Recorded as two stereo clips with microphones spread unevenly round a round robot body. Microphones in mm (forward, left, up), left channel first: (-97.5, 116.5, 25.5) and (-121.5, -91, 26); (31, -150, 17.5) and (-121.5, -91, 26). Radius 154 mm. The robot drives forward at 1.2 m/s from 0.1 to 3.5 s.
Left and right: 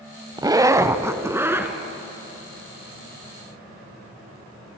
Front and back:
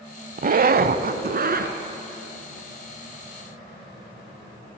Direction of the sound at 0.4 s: 165° right.